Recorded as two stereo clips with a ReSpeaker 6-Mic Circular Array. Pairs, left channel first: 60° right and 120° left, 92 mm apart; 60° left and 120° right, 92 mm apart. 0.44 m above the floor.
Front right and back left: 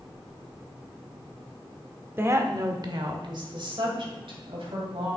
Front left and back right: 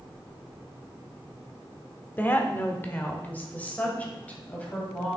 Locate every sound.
2.2 s a woman speaking: 100° left, 0.9 m; by 5.2 s 135° left, 2.5 m